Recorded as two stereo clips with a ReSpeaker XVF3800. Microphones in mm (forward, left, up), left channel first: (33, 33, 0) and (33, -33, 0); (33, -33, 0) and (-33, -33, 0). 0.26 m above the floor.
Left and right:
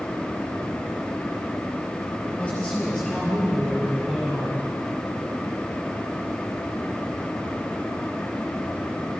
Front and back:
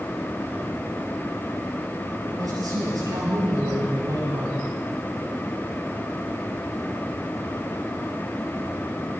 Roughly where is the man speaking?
Behind left.